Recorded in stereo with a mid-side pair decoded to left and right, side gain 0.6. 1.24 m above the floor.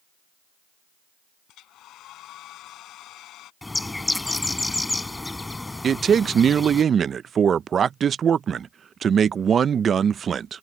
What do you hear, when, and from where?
1.5 s a hair dryer: 60° left
3.6 s a bird: 15° left
5.8 s a man speaking: 35° right